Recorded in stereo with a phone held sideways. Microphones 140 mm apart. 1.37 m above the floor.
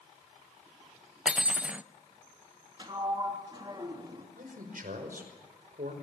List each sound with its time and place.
1.2 s cutlery clinking: 10° right (ahead or behind), 0.6 m
2.8 s a sliding door: 30° right (ahead or behind), 3 m
4.4 s a man speaking: 80° right, 5 m